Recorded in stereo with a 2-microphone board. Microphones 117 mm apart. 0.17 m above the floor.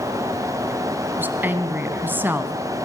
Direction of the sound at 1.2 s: 20° right (ahead or behind).